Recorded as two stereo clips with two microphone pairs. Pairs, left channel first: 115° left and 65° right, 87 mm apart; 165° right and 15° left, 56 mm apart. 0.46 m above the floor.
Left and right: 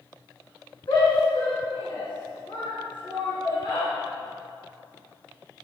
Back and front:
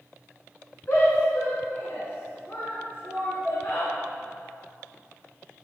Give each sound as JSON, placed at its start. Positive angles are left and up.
{"t": 0.9, "sound": "a shout", "azimuth_deg": 140, "distance_m": 4.5}